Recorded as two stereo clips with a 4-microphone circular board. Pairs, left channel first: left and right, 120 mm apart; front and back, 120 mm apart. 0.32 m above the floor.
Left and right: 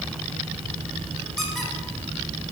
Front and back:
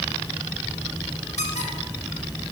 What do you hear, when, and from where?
1.4 s a squeak: straight ahead, 2.5 m